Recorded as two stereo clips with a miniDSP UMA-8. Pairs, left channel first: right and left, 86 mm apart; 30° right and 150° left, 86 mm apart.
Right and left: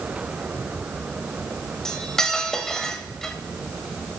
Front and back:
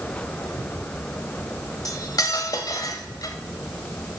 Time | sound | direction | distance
1.9 | cutlery clinking | 10° right | 1.1 m